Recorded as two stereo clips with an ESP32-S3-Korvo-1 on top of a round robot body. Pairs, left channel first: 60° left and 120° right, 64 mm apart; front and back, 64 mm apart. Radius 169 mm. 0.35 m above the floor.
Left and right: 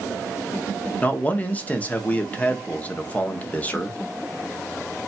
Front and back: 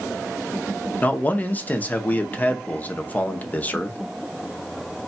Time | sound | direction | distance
1.0 | a man speaking | 25° left | 0.9 m